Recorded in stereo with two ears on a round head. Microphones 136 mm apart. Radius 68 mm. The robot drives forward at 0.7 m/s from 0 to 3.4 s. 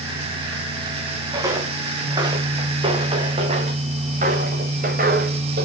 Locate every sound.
1.3 s footsteps: 20° right (ahead or behind), 3 m; by 5.7 s 65° right (ahead or behind), 4 m